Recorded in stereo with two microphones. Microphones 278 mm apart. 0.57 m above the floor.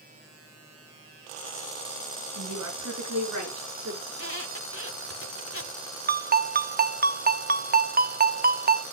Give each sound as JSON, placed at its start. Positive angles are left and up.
{"t": 2.4, "sound": "a woman speaking", "side_deg": -80, "distance_m": 5.5}
{"t": 4.1, "sound": "a squeak", "side_deg": 50, "distance_m": 1.5}
{"t": 6.1, "sound": "a ringtone", "side_deg": -35, "distance_m": 0.5}